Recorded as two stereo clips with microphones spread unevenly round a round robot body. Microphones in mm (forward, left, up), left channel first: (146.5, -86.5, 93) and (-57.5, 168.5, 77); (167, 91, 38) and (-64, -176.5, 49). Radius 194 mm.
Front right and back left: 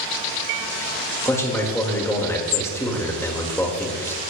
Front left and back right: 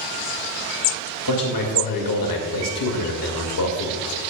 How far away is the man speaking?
About 2.0 m.